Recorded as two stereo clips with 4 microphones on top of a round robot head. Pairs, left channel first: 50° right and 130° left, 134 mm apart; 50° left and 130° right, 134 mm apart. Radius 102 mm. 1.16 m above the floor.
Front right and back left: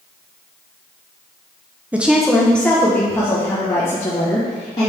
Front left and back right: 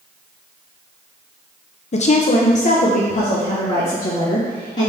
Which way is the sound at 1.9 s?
55° left.